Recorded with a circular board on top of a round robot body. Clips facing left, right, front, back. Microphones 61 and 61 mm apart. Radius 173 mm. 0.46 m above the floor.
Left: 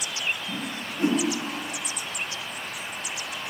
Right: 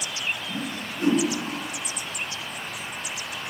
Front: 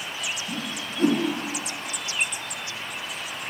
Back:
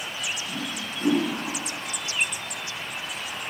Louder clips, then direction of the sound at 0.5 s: Right 1 dB, even; 40° left.